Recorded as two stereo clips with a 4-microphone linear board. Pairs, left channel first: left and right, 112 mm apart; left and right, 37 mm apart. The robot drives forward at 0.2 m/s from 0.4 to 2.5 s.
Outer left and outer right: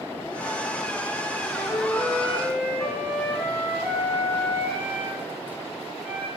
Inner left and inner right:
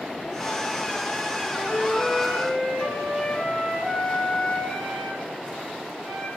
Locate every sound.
1.4 s a flute: 20° left (ahead or behind), 0.8 m; by 6.3 s 15° left (ahead or behind), 1.0 m